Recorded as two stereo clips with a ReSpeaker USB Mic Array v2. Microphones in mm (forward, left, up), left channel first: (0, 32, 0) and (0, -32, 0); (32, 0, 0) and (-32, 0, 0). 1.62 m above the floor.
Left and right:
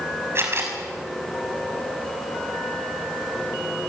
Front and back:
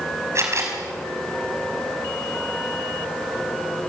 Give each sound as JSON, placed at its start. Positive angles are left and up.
{"t": 0.3, "sound": "a camera shutter", "azimuth_deg": -140, "distance_m": 5.5}